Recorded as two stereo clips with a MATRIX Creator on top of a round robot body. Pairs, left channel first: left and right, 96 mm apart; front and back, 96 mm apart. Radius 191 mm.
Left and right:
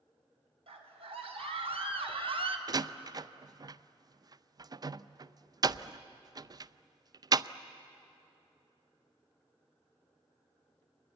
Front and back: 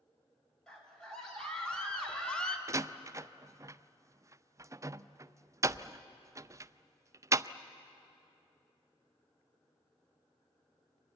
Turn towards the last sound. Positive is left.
turn(degrees=-130)